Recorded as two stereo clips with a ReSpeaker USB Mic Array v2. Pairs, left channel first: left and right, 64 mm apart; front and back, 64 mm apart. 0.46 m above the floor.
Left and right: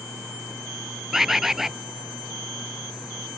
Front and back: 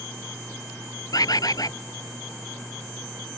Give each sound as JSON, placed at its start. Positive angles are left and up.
{"t": 1.1, "sound": "a bird", "azimuth_deg": -5}